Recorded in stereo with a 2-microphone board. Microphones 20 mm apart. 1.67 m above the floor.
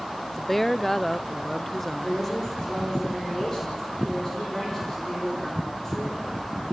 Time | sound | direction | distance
0.3 | a woman speaking | 15° left (ahead or behind) | 0.5 m
2.0 | a woman speaking | 20° left (ahead or behind) | 6 m